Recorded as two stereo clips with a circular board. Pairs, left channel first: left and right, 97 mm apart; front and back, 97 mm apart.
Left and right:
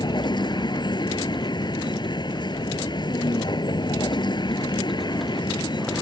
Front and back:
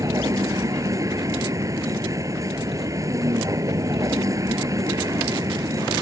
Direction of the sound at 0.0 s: 125° left.